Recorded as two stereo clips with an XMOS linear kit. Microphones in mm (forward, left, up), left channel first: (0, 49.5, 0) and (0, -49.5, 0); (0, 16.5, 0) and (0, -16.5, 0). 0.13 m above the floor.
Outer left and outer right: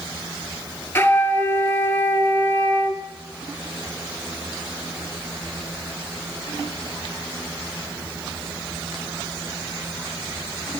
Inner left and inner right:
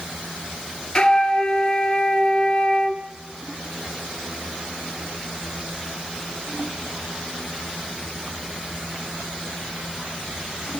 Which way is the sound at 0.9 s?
25° left (ahead or behind).